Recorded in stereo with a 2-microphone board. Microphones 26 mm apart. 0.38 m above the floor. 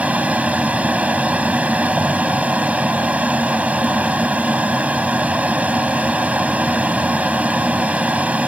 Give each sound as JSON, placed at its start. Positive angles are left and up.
{"t": 0.0, "sound": "an aircraft", "side_deg": -60}